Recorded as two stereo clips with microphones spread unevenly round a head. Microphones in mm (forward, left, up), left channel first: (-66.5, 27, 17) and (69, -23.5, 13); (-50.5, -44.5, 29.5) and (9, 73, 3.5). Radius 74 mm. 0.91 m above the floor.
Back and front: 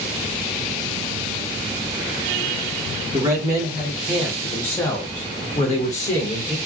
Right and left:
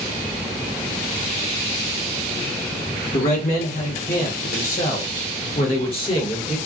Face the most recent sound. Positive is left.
turn(degrees=-175)